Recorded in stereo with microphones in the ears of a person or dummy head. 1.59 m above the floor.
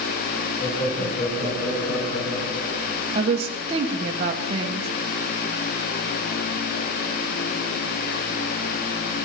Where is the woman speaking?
35° right (ahead or behind), 1.6 m.